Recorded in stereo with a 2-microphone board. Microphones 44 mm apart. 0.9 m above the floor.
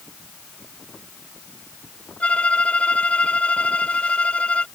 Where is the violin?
35° left (ahead or behind).